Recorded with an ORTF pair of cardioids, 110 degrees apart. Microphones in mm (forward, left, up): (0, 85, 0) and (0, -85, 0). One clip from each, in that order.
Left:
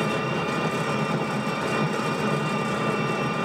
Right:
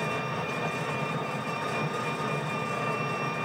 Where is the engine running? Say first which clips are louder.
Left 5 dB; 70° left, 1.0 m.